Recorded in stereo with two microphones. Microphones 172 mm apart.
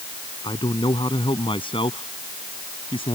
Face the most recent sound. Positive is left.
turn(degrees=35)  # may be behind; listen again after turning